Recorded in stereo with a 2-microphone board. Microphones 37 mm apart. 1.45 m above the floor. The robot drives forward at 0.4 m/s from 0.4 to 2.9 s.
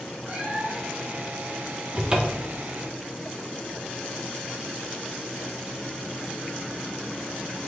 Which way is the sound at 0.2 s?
35° right (ahead or behind).